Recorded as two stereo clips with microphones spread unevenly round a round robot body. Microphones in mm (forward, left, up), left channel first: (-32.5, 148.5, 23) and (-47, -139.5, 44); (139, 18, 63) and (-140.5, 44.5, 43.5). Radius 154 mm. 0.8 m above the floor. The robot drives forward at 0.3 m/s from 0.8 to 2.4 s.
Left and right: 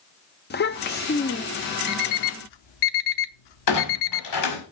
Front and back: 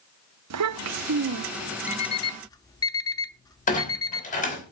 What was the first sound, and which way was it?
A child speaking, 145° left.